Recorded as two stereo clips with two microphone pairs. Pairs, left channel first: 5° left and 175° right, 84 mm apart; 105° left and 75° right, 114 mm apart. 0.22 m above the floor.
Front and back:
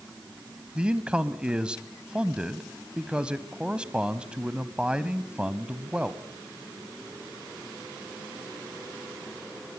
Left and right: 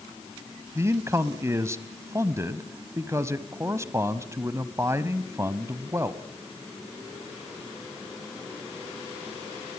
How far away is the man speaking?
About 1.0 m.